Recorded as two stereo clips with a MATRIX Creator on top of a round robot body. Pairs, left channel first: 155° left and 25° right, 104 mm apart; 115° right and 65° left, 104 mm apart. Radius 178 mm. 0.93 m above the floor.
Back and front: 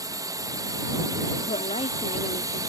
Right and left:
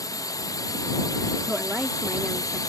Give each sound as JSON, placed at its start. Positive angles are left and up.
{"t": 0.0, "sound": "a drone", "azimuth_deg": -70}
{"t": 1.5, "sound": "a woman speaking", "azimuth_deg": 145}